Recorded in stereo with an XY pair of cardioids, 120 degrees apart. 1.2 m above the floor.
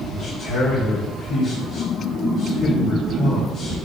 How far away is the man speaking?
About 3.5 m.